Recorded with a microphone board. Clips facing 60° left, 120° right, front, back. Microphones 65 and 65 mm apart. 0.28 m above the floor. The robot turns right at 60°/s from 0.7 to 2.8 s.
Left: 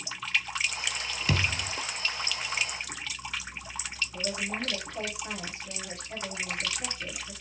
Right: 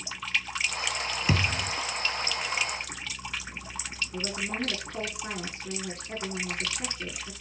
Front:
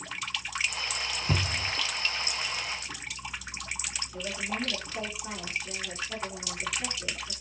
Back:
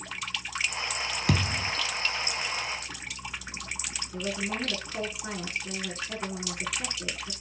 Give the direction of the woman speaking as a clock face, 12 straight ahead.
5 o'clock.